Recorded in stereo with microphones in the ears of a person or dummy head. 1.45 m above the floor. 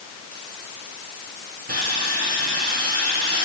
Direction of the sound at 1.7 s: 55° right (ahead or behind).